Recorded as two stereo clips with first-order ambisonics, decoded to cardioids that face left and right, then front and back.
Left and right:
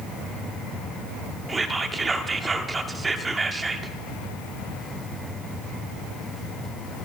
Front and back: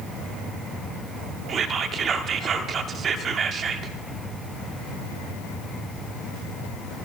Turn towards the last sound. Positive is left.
turn(degrees=-155)